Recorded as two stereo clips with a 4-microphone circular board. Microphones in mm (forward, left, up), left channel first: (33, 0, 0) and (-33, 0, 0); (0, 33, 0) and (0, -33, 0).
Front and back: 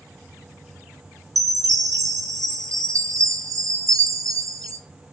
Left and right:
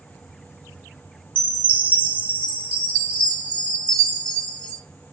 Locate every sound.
1.4 s a chime: 160° left, 1.9 m